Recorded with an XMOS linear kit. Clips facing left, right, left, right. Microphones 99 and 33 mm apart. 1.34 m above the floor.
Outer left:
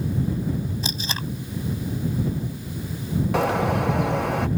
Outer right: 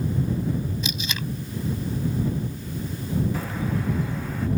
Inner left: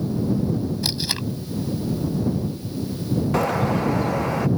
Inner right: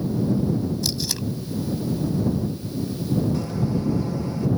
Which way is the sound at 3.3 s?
75° left (ahead or behind).